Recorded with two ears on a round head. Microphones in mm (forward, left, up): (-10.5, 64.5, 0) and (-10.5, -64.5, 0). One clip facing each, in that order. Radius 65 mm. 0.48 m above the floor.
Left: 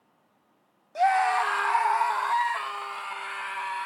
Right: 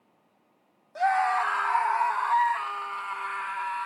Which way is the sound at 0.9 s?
20° left (ahead or behind).